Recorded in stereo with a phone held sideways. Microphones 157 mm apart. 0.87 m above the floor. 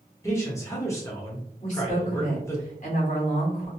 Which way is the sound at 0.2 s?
20° left (ahead or behind).